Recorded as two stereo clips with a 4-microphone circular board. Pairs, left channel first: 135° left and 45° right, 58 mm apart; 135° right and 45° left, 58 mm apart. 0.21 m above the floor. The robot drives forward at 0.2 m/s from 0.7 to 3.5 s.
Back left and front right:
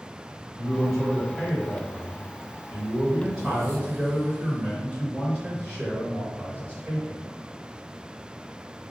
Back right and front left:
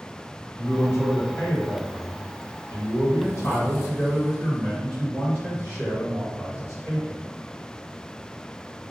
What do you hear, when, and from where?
0.6 s a man speaking: 135° right, 1.9 m; by 7.3 s 150° right, 2 m